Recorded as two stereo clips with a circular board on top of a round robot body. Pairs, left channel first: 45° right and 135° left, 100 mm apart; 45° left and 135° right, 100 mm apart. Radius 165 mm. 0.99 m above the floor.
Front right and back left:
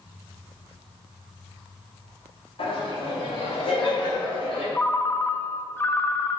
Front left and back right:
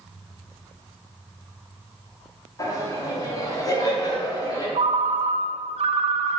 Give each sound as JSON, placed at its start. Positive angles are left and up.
{"t": 2.6, "sound": "laughter", "azimuth_deg": -10, "distance_m": 2.5}
{"t": 4.8, "sound": "a ringtone", "azimuth_deg": -115, "distance_m": 0.5}